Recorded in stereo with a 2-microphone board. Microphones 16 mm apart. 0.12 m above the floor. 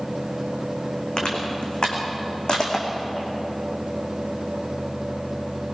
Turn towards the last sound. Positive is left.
turn(degrees=55)  # may be behind; listen again after turning